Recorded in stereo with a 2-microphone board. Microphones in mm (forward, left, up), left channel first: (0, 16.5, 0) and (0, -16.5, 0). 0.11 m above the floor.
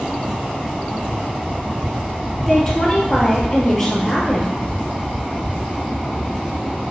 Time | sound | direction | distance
2.5 | a woman speaking | 10° left (ahead or behind) | 2.5 m